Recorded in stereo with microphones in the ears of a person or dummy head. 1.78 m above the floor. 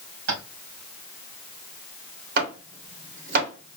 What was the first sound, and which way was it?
Tapping, 80° right.